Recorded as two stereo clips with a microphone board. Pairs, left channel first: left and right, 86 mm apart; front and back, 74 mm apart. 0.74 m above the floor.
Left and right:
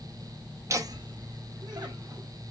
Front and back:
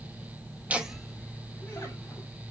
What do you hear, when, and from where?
0.7 s laughter: 120° right, 0.8 m; by 2.3 s 50° right, 2.5 m